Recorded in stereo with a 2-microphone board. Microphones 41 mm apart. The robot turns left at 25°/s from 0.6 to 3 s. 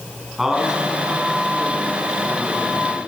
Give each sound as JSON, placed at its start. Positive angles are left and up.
{"t": 0.4, "sound": "a man speaking", "azimuth_deg": -5, "distance_m": 4.5}